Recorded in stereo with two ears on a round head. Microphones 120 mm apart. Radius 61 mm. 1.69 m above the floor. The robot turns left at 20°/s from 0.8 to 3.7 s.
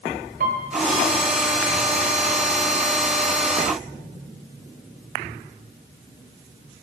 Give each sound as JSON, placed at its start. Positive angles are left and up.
{"t": 0.4, "sound": "a piano", "side_deg": -70, "distance_m": 0.9}